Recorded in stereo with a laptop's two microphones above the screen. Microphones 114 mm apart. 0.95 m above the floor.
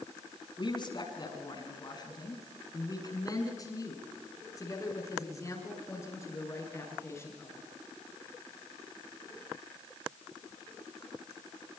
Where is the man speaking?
45° left (ahead or behind), 7.5 m; by 7.6 s 20° left (ahead or behind), 11.5 m.